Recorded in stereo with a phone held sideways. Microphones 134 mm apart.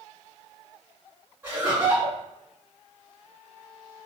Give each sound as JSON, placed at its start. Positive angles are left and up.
{"t": 1.4, "sound": "laughter", "side_deg": -10, "distance_m": 2.0}